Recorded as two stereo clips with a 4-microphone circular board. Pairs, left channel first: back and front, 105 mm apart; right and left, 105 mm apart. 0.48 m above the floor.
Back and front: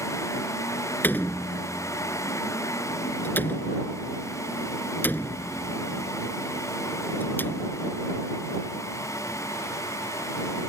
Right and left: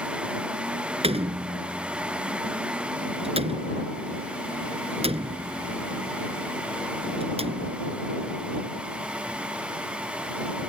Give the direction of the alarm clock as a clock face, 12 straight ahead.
No alarm clock in this recording.